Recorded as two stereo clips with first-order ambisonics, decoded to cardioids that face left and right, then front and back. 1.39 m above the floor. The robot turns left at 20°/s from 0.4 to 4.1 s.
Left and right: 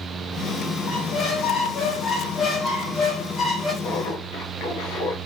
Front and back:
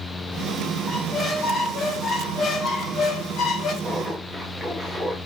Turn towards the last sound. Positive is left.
turn(degrees=100)